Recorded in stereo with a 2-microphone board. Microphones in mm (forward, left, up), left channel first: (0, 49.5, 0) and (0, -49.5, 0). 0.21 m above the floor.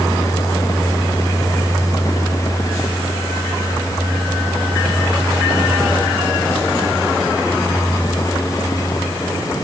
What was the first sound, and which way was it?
Only background noise.